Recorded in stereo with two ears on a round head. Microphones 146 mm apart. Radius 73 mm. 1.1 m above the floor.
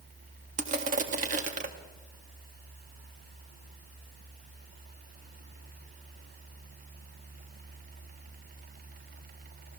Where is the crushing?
50° right (ahead or behind), 1.8 m.